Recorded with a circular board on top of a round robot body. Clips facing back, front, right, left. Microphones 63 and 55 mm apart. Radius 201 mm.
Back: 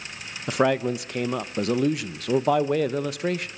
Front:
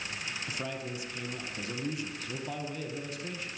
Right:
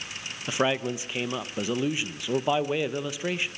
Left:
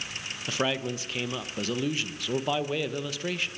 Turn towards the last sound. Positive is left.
turn(degrees=-165)